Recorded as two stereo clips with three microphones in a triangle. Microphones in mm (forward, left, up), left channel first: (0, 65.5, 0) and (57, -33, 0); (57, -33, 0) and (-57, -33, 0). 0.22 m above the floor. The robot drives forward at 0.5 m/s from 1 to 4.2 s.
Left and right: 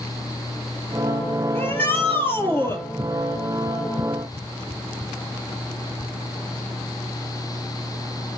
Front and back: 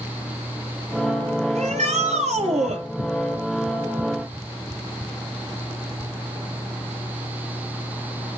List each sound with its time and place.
1.6 s a shout: 170° right, 5 m